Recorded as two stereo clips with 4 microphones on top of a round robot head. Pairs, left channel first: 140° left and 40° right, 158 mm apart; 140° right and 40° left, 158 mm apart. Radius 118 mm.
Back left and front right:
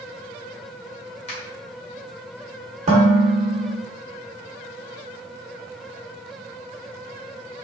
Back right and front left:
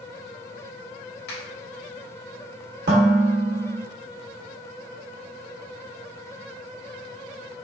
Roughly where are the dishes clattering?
Ahead.